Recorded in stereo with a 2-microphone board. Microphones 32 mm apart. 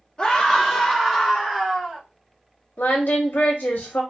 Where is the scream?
20° left (ahead or behind), 0.8 m; by 2.0 s 25° right (ahead or behind), 1.2 m.